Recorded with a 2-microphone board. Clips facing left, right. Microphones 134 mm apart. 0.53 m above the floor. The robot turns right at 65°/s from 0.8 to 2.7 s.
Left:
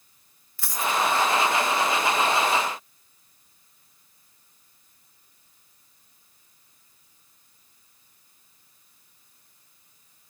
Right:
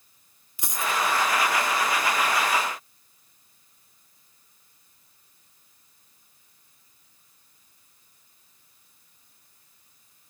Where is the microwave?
I don't hear a microwave.